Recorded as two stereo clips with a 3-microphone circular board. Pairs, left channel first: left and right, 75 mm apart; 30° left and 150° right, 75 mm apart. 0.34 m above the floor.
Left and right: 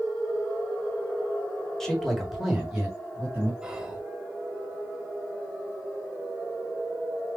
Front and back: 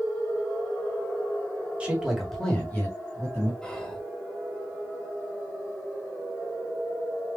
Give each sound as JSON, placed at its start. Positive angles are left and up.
{"t": 1.8, "sound": "a man speaking", "azimuth_deg": 165, "distance_m": 1.4}
{"t": 3.6, "sound": "whispering", "azimuth_deg": -30, "distance_m": 0.9}